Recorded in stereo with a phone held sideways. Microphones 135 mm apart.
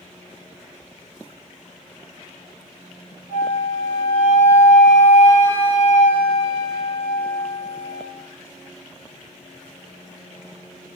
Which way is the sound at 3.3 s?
65° right (ahead or behind).